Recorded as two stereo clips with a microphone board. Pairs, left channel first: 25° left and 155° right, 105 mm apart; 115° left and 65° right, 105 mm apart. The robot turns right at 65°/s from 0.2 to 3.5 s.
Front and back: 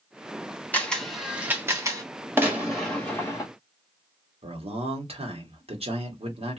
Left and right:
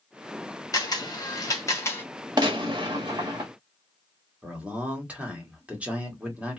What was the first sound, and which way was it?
A camera shutter, 85° left.